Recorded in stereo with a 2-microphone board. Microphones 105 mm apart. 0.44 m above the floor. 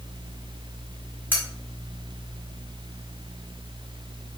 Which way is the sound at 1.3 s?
20° left (ahead or behind).